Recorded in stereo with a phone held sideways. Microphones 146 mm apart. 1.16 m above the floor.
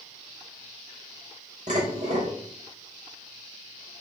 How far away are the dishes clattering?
About 3.5 m.